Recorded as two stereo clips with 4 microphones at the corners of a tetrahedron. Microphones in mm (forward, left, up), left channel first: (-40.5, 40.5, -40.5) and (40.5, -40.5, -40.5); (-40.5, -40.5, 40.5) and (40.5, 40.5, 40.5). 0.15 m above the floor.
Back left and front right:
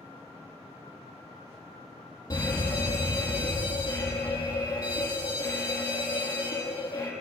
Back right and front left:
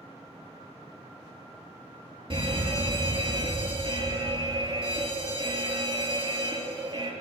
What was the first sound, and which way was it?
A fire alarm, 80° left.